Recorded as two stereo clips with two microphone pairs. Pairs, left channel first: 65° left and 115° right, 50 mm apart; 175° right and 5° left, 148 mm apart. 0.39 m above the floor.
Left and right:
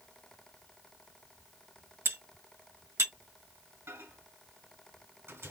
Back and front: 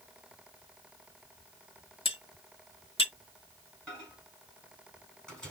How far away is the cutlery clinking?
About 1.0 m.